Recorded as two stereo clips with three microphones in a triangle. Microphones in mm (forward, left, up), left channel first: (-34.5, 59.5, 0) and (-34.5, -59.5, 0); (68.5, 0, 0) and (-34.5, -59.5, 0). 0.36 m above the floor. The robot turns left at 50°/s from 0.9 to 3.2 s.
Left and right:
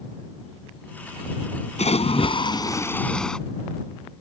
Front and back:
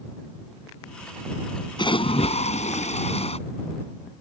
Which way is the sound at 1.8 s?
75° left.